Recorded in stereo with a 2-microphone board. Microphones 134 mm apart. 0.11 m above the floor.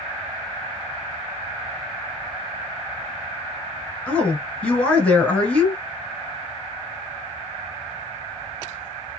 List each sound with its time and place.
4.1 s a woman speaking: 10° left (ahead or behind), 1.4 m